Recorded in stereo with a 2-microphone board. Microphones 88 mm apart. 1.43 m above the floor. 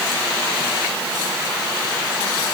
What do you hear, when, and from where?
Only background noise.